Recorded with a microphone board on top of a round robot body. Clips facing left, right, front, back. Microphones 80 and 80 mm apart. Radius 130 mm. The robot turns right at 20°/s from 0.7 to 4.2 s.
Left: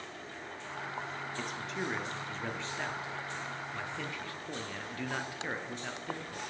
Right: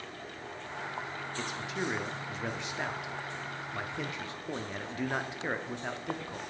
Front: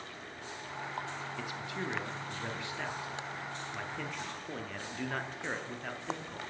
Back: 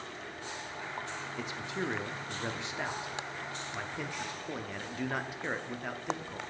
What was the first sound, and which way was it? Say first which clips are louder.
A man speaking: right 3 dB, back 5 dB; 170° right.